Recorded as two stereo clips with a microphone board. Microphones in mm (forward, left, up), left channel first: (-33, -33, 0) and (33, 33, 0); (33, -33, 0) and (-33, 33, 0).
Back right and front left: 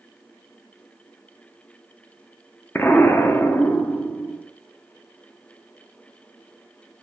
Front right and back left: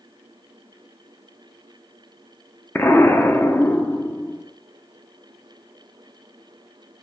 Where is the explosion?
90° right, 0.7 m.